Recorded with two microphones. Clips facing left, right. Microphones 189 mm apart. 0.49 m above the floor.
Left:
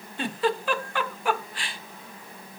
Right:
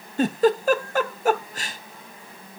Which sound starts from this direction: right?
A giggle, at 0.2 s.